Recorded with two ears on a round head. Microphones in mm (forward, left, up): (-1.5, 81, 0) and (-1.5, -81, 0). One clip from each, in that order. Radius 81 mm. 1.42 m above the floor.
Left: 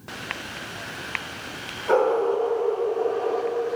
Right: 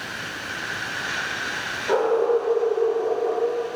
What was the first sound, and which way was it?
A dog barking, 40° left (ahead or behind).